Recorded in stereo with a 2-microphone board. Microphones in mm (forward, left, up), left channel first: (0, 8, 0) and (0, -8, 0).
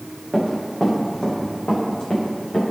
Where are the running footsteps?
25° left (ahead or behind), 5 m; by 2.6 s 60° left (ahead or behind), 5.5 m.